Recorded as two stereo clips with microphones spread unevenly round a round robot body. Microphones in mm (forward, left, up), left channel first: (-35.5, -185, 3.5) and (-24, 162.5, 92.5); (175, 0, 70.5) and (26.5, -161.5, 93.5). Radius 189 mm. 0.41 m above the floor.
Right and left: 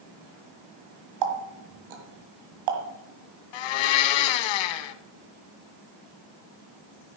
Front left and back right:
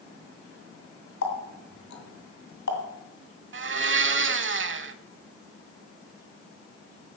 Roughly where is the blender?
Right.